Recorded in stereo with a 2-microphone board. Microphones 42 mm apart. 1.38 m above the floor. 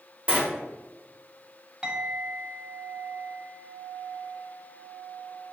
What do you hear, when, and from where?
0.3 s a sliding door: 30° right (ahead or behind), 1.1 m
1.8 s a clink: 20° right (ahead or behind), 1.3 m